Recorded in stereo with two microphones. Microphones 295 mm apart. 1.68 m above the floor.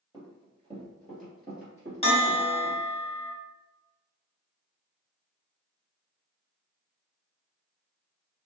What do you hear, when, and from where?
0.1 s running footsteps: 10° right (ahead or behind), 1.9 m; by 2.9 s 50° right (ahead or behind), 2.5 m
2.0 s a bell: 20° left (ahead or behind), 0.9 m